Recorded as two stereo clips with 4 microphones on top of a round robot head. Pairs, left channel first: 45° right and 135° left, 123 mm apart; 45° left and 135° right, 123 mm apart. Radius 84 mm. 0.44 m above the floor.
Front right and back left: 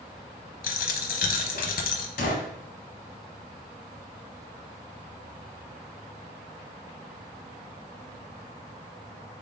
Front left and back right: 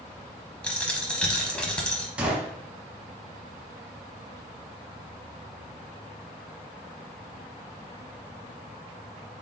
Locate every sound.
0.6 s a dropped coin: 40° right, 0.7 m
2.2 s a gunshot: 55° right, 0.8 m